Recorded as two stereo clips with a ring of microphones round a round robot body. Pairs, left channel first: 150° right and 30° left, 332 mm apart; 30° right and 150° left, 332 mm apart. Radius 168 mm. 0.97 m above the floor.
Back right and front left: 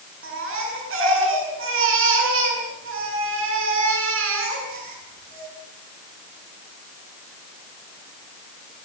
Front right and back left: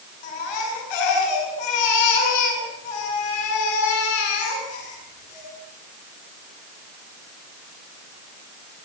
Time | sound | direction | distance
0.2 | a baby crying | 25° right | 8 m